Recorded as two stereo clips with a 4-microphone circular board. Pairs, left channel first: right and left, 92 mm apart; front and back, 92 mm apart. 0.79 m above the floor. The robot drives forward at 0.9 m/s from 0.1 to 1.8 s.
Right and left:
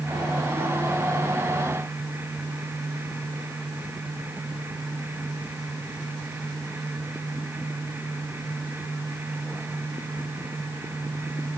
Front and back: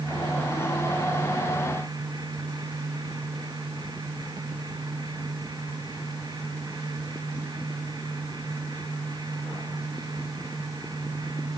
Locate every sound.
Only background noise.